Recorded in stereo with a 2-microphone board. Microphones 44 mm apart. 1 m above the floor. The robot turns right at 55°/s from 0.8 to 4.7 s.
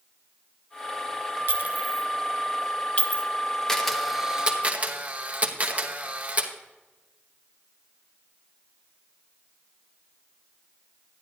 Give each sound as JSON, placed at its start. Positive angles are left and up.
{"t": 1.5, "sound": "a clink", "side_deg": -50, "distance_m": 0.7}
{"t": 3.7, "sound": "a camera shutter", "side_deg": 10, "distance_m": 1.1}